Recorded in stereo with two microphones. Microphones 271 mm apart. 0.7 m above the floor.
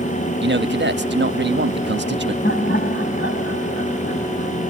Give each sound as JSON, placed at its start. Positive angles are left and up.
{"t": 0.4, "sound": "a man speaking", "side_deg": -40, "distance_m": 1.0}
{"t": 2.4, "sound": "laughter", "side_deg": 40, "distance_m": 5.0}